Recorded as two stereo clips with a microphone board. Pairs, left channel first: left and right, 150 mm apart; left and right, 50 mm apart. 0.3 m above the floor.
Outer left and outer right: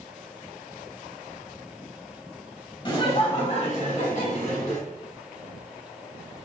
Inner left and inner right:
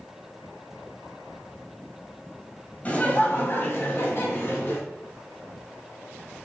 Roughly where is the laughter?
Left.